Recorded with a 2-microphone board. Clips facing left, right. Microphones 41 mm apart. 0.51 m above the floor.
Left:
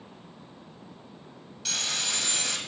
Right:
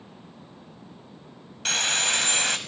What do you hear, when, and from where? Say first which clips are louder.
1.6 s sawing: right 7 dB; 50° right (ahead or behind), 0.7 m